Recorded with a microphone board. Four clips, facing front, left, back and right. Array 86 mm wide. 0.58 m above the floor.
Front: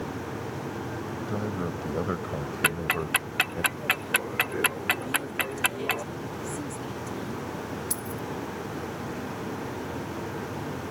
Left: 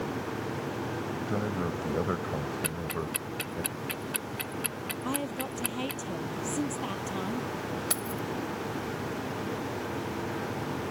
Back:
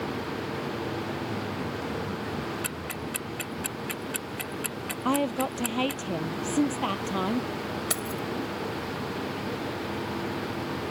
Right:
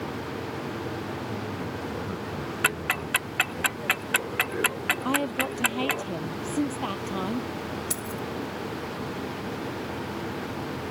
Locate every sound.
1.2 s a man speaking: 55° left; by 3.6 s 10° left
2.6 s ticking: 50° right
5.0 s a woman speaking: 160° right
7.9 s keys jangling: 160° left